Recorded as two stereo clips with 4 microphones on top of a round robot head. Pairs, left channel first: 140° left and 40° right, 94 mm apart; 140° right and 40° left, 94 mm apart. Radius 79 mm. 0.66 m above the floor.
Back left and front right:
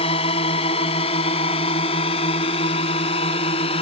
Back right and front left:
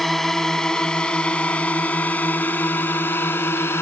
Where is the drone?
130° left; by 3.8 s 155° left.